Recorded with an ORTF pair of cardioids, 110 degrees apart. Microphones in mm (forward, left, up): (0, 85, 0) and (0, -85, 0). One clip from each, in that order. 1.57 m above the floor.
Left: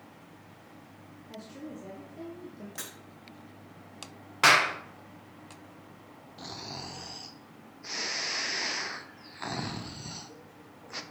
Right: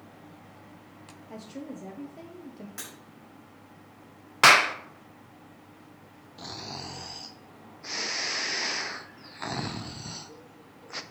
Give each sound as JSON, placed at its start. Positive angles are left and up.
{"t": 1.3, "sound": "a woman speaking", "azimuth_deg": -20, "distance_m": 1.0}
{"t": 2.8, "sound": "breaking glass", "azimuth_deg": 0, "distance_m": 3.5}
{"t": 4.4, "sound": "a clap", "azimuth_deg": -25, "distance_m": 0.8}
{"t": 6.4, "sound": "snoring", "azimuth_deg": -10, "distance_m": 0.5}